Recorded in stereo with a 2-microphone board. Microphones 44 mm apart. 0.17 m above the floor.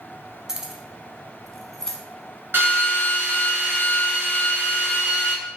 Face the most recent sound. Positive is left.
turn(degrees=-45)  # may be behind; listen again after turning